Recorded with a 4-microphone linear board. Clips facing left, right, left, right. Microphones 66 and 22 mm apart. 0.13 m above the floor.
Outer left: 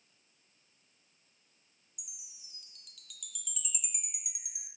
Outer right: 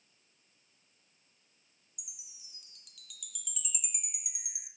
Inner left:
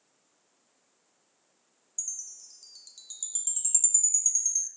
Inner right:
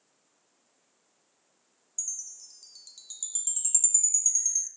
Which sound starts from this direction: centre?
A chime, at 2.0 s.